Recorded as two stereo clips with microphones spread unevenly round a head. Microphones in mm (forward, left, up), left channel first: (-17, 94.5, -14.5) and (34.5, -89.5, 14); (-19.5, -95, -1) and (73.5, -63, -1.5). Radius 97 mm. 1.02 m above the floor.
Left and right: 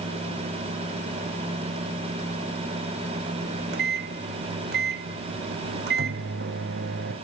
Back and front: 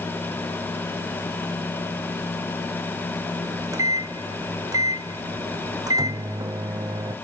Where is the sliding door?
I don't hear a sliding door.